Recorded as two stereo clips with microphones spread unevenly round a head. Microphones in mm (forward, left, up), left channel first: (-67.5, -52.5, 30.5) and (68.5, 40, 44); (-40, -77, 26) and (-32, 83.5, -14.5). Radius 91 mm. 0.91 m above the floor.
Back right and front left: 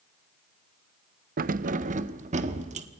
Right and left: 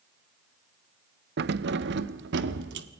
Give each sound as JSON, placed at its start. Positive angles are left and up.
{"t": 1.4, "sound": "keys jangling", "azimuth_deg": 75, "distance_m": 0.6}